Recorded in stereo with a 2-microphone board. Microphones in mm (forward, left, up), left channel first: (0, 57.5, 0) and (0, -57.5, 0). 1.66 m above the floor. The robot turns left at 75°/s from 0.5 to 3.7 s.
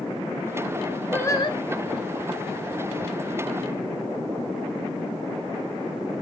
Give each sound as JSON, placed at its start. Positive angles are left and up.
{"t": 1.1, "sound": "singing", "azimuth_deg": 165, "distance_m": 1.2}